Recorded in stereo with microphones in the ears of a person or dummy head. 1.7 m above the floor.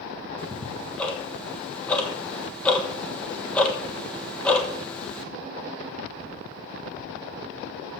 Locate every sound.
0.4 s ticking: 10° left (ahead or behind), 1.2 m